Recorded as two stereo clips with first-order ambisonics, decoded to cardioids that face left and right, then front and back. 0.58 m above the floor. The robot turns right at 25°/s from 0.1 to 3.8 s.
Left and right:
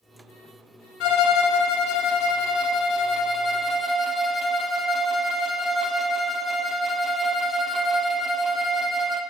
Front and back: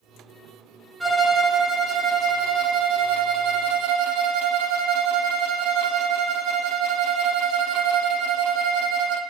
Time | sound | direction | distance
1.0 | a violin | 95° left | 0.7 m